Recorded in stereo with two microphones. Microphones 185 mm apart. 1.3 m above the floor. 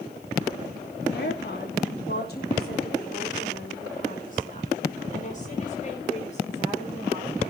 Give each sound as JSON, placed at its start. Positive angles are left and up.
{"t": 1.1, "sound": "a woman speaking", "side_deg": 70, "distance_m": 3.5}